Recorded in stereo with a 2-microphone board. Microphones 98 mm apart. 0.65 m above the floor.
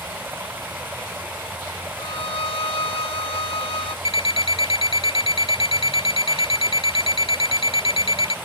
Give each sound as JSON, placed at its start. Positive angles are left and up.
{"t": 0.0, "sound": "running water", "side_deg": -15}
{"t": 2.0, "sound": "a violin", "side_deg": 65}
{"t": 4.0, "sound": "an alarm clock", "side_deg": 65}